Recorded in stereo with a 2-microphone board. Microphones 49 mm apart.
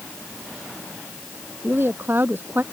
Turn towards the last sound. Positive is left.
turn(degrees=-45)  # may be behind; listen again after turning